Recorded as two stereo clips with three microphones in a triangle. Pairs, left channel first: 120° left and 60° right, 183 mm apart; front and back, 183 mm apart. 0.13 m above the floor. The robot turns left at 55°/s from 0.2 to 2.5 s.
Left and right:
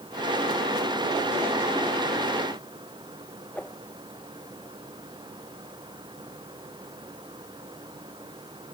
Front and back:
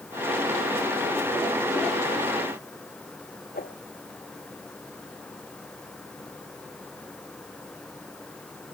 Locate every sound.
3.5 s a whoosh: 40° left